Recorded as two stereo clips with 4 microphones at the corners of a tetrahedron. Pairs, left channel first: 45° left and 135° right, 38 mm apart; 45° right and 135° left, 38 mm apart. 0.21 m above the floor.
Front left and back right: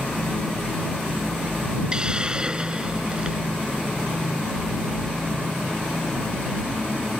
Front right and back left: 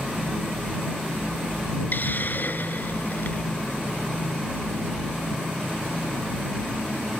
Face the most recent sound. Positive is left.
turn(degrees=-70)